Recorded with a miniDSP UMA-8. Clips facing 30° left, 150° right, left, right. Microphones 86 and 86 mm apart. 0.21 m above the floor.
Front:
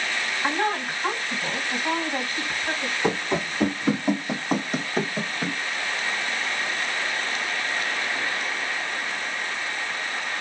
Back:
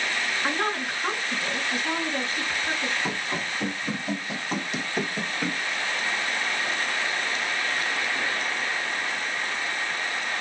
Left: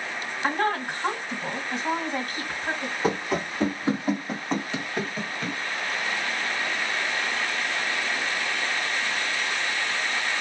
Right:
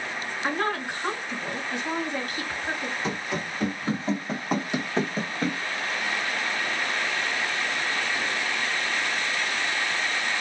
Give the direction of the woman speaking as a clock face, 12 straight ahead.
10 o'clock.